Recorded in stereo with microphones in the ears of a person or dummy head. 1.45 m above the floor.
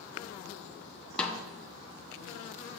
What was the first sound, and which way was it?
A snare drum, centre (ahead or behind).